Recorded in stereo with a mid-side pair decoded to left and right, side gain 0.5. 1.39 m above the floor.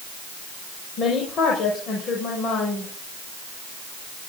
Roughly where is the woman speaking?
Ahead left.